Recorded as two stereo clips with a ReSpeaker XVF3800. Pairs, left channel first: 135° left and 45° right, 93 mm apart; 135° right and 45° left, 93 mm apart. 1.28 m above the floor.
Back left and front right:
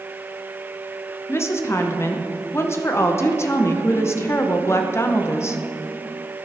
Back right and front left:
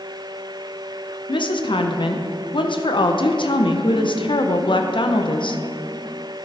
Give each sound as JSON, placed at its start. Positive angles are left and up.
{"t": 1.3, "sound": "a woman speaking", "azimuth_deg": -165, "distance_m": 0.7}